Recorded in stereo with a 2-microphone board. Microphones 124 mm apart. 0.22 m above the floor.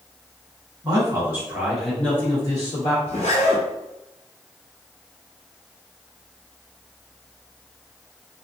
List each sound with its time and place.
0.8 s a man speaking: 35° right (ahead or behind), 1.4 m; by 3.0 s 45° left (ahead or behind), 1.5 m
3.1 s a zipper: 75° left (ahead or behind), 1.3 m